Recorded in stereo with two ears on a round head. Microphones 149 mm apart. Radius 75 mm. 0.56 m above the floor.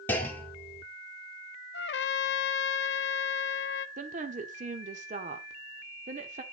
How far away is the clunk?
About 1.7 m.